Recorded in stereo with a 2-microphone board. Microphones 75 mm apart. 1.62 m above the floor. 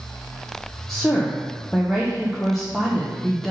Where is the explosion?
No explosion in this recording.